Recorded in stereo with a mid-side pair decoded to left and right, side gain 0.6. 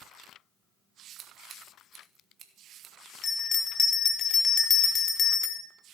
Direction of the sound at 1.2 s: 45° right.